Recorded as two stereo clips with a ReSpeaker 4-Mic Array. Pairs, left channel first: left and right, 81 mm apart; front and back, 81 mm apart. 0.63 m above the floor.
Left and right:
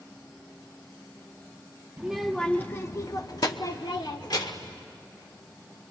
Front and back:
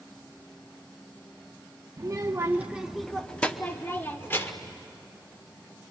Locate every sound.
2.0 s a child speaking: 165° right, 0.7 m; by 4.7 s 60° left, 1.6 m